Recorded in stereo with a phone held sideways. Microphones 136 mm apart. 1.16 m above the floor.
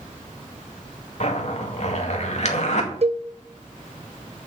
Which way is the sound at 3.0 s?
50° right (ahead or behind).